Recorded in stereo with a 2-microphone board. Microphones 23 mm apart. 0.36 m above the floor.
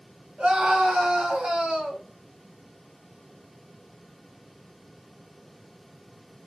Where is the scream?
55° right (ahead or behind), 2.5 m; by 2.0 s 65° right (ahead or behind), 3 m.